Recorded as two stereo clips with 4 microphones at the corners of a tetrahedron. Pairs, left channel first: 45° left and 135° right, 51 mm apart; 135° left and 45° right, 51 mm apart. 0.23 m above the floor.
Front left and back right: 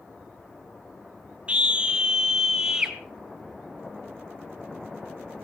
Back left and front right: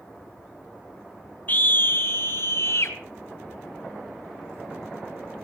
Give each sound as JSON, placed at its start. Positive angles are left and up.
{"t": 1.5, "sound": "a scream", "azimuth_deg": 170, "distance_m": 1.8}